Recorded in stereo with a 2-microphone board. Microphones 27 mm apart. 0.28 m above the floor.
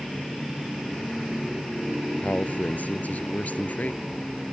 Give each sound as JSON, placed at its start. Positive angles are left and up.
{"t": 2.2, "sound": "a man speaking", "side_deg": 60}